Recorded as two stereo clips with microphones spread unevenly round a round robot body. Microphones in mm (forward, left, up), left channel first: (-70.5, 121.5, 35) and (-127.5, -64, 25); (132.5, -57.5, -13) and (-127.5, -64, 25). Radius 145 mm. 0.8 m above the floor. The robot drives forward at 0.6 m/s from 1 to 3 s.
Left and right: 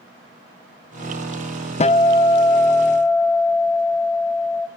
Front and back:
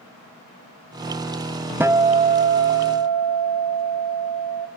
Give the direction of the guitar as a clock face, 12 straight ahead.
9 o'clock.